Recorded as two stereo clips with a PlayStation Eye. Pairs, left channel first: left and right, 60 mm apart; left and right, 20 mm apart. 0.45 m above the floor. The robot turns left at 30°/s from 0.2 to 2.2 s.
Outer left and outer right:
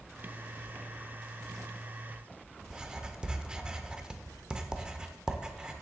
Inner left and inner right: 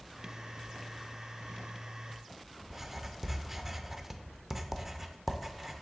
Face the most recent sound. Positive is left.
turn(degrees=-15)  # may be behind; listen again after turning